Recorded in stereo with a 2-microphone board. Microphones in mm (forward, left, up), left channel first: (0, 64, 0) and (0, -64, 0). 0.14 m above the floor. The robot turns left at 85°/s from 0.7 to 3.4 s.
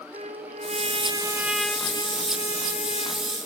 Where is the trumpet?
105° right, 0.9 m; by 3.4 s 30° left, 0.9 m.